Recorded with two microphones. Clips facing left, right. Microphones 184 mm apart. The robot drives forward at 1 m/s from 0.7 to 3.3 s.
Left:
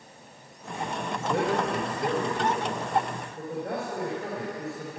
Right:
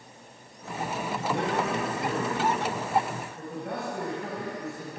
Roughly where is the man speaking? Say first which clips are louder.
Left 2 dB; left.